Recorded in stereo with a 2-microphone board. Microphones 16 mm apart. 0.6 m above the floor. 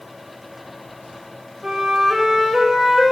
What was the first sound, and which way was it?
A flute, 35° right (ahead or behind).